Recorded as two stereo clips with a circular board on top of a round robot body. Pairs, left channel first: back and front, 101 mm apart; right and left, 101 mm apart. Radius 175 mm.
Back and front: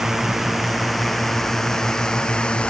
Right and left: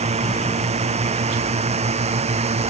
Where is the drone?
90° left; by 2.7 s 100° left.